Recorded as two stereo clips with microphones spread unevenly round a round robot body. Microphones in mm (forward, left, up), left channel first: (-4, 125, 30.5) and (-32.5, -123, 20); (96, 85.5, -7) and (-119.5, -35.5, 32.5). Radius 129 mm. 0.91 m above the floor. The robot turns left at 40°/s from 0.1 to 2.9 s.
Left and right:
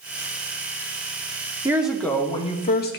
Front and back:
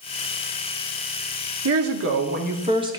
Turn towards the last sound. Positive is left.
turn(degrees=135)